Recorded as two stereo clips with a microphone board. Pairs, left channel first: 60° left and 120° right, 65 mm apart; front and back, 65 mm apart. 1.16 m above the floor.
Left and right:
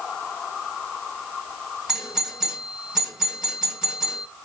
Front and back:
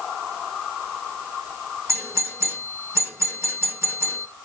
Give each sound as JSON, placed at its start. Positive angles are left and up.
{"t": 1.9, "sound": "a doorbell", "azimuth_deg": 165, "distance_m": 1.8}